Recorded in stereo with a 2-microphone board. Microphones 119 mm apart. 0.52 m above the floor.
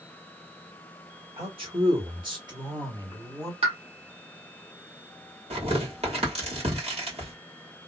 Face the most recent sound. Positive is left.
turn(degrees=-60)  # may be behind; listen again after turning